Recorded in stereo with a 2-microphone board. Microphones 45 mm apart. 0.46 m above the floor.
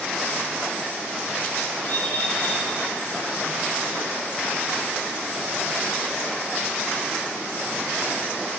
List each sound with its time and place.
1.8 s a bird: 40° left (ahead or behind), 3.5 m